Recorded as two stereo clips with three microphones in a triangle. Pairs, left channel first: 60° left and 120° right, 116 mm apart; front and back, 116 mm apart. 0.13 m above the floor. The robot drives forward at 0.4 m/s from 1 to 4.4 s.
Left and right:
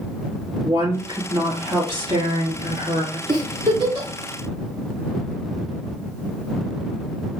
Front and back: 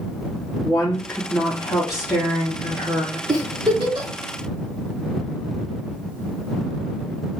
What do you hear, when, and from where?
0.6 s a woman speaking: 80° right, 2.5 m; by 3.2 s 105° right, 2.5 m
3.3 s a giggle: 145° right, 1.2 m; by 4.1 s 155° right, 1.4 m